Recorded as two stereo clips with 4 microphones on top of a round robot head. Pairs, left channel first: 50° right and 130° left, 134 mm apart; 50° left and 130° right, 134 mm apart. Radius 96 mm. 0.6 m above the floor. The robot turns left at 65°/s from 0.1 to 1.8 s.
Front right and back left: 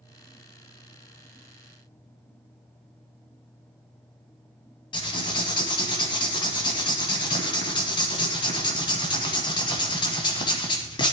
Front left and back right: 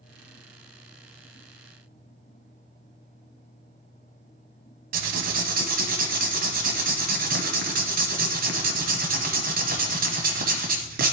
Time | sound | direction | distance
4.9 | writing | 110° right | 1.1 m